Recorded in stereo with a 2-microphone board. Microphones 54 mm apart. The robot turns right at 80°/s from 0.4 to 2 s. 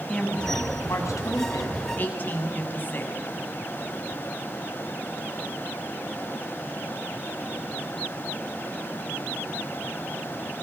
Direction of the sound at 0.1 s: 15° left.